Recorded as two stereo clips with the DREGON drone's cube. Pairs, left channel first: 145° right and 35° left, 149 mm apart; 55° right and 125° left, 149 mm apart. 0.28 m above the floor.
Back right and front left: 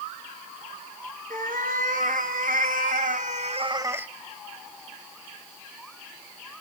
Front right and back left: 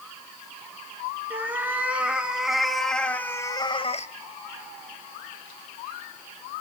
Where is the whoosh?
I don't hear a whoosh.